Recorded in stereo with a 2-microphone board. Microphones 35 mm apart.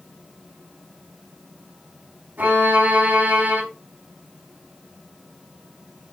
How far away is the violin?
About 3.5 m.